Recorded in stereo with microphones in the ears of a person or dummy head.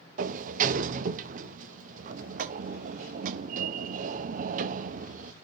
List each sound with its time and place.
0.2 s a sliding door: 45° right (ahead or behind), 0.6 m